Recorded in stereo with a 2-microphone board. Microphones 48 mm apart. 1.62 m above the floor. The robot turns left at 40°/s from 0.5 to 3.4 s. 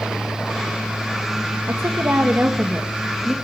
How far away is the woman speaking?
About 2 m.